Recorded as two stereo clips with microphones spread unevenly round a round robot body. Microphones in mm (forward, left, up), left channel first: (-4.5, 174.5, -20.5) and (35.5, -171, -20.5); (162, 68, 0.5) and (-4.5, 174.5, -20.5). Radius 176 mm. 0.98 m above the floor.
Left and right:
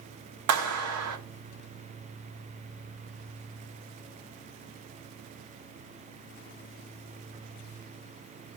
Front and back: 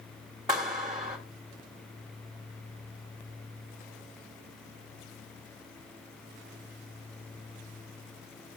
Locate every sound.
0.5 s a clap: 130° right, 1.3 m